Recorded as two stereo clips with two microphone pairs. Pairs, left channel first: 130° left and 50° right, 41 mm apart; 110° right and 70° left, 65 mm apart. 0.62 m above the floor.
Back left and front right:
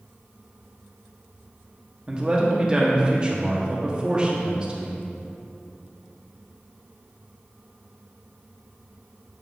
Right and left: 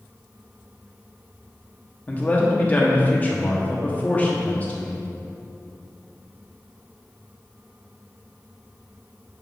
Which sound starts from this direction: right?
A man speaking, at 2.1 s.